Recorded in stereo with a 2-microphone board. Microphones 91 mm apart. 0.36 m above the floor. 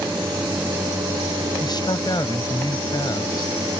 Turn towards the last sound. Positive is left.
turn(degrees=50)  # may be behind; listen again after turning